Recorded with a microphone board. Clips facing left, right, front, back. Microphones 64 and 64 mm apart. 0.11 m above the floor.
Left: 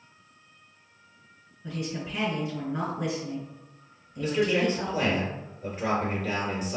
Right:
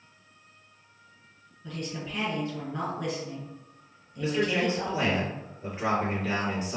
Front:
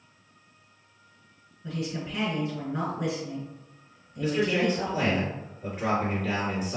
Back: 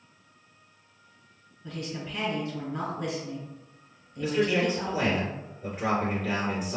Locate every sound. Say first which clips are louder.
1.6 s a woman speaking: left 2 dB, front 3 dB; 40° left, 1.3 m
4.2 s a man speaking: left 2 dB, even; 95° right, 1.9 m